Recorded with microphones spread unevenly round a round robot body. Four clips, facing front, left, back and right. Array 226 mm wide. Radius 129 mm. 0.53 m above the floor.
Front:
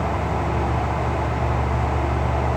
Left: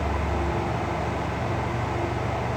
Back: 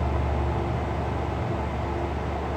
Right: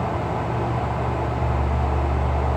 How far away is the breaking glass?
I don't hear breaking glass.